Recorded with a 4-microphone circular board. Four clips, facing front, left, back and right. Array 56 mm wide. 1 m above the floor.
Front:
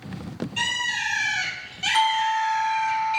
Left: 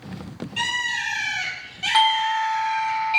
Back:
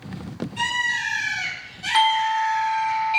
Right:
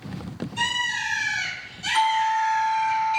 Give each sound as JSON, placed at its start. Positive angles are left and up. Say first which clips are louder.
{"t": 0.6, "sound": "a bird", "louder": "left 1 dB, back 3 dB", "azimuth_deg": 65, "distance_m": 5.5}
{"t": 1.9, "sound": "a doorbell", "louder": "left 1 dB, back 2 dB", "azimuth_deg": 105, "distance_m": 1.1}